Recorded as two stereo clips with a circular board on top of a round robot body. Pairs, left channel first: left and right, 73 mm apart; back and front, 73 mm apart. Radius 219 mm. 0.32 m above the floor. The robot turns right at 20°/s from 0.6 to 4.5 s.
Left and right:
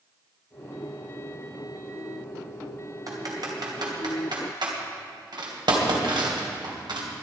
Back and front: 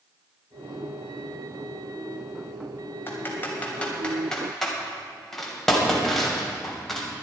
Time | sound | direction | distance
3.1 | typing on a keyboard | 125° right | 3 m